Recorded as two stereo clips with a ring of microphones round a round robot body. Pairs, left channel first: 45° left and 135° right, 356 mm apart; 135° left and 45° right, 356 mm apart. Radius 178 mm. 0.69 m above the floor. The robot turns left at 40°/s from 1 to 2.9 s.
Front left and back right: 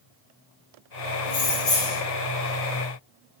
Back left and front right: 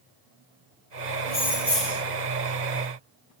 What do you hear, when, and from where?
1.3 s keys jangling: 65° left, 1.3 m; by 2.0 s 35° left, 1.3 m